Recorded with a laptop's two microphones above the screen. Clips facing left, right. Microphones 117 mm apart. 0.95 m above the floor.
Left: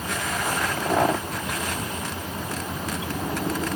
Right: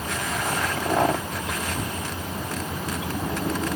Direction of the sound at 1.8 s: 45° right (ahead or behind).